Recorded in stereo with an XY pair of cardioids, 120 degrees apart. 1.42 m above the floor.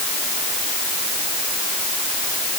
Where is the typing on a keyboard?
No typing on a keyboard in this recording.